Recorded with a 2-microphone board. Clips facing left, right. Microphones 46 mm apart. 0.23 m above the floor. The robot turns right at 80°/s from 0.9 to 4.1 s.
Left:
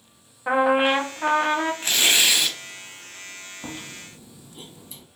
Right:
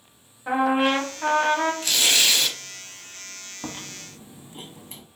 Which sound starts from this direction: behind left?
Tearing paper, at 1.8 s.